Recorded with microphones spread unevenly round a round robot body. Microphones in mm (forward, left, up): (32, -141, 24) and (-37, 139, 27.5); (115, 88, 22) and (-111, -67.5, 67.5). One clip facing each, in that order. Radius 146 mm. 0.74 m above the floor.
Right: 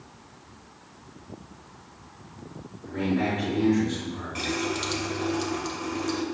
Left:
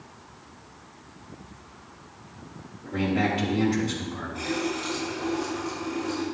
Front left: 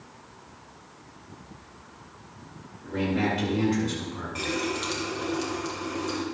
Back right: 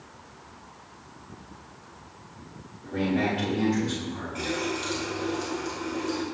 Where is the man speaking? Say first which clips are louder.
Even, back right 1 dB; 115° left, 6 m.